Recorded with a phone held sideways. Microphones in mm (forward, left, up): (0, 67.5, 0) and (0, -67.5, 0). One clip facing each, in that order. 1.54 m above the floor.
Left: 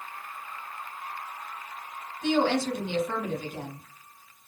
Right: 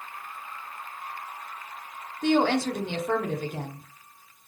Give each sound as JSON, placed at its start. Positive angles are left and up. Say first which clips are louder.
{"t": 2.2, "sound": "a woman speaking", "louder": "right 2 dB", "side_deg": -60, "distance_m": 0.8}